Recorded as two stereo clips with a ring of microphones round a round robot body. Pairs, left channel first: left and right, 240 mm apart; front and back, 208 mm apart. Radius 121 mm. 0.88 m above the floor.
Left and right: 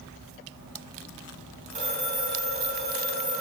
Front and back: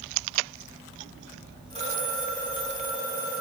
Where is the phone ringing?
75° right, 4.5 m.